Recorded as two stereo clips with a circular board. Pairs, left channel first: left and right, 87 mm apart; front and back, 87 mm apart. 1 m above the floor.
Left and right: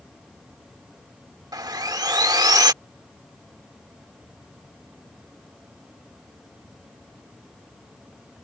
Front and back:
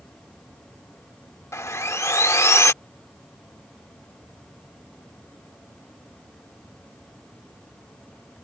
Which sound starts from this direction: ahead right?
Sawing, at 1.5 s.